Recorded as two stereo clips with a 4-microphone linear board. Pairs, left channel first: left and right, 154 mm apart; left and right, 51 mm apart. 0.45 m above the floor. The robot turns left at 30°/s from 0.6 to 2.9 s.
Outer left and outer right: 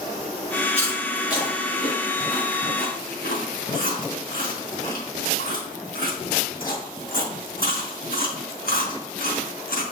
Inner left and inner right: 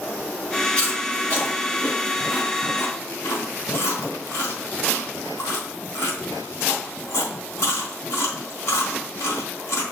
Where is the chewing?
15° left (ahead or behind), 3.5 m; by 9.8 s 75° left (ahead or behind), 3.5 m.